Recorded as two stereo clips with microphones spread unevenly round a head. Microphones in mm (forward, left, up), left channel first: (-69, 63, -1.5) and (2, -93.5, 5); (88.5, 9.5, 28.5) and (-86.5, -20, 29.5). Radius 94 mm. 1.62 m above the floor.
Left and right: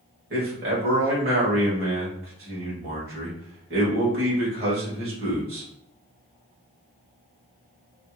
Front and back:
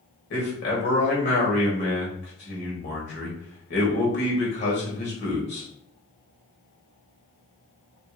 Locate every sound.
0.3 s a man speaking: 20° right, 1.3 m